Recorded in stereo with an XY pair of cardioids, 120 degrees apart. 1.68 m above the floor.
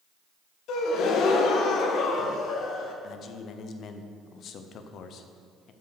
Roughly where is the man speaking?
Ahead left.